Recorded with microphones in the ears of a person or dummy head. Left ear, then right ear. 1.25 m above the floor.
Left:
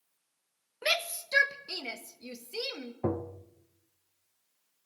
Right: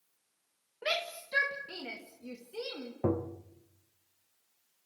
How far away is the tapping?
About 0.8 m.